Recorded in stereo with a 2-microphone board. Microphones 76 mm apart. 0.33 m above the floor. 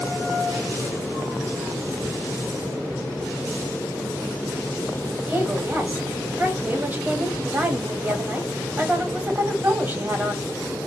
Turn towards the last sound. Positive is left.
turn(degrees=-25)  # may be behind; listen again after turning